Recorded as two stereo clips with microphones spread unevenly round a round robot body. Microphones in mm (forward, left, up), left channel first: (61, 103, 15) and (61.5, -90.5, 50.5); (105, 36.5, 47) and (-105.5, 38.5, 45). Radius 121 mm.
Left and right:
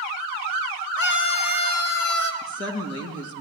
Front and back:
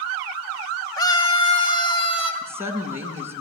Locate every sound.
1.0 s a scream: 70° left, 3.5 m; by 2.3 s 65° left, 4 m
2.4 s a woman speaking: 100° left, 4.5 m